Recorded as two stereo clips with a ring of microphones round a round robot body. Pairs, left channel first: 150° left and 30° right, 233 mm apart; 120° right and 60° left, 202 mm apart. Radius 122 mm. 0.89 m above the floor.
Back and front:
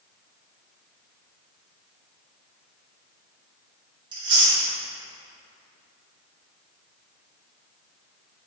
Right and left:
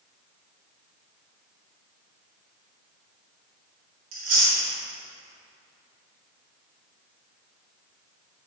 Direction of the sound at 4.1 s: 40° left.